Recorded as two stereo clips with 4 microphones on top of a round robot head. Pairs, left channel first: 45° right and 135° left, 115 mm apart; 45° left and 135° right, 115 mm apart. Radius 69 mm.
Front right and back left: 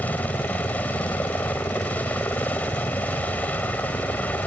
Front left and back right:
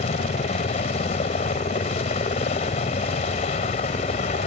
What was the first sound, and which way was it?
A helicopter, 30° left.